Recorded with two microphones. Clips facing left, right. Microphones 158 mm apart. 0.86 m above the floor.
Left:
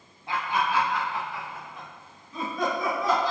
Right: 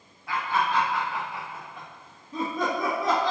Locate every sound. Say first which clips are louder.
0.3 s laughter: right 1 dB; 25° left (ahead or behind), 0.8 m; by 3.3 s 65° right (ahead or behind), 1.5 m